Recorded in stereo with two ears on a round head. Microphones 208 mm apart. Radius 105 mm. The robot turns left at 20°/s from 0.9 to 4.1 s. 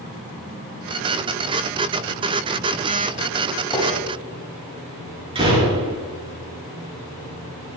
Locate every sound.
3.7 s a gunshot: 15° left (ahead or behind), 5 m
5.3 s a door slam: 25° right (ahead or behind), 4.5 m